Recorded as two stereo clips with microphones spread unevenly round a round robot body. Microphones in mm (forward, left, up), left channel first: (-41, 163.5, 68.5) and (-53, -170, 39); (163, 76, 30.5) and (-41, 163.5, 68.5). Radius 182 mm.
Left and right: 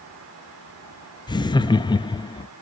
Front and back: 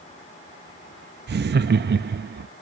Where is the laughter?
165° left, 0.6 m.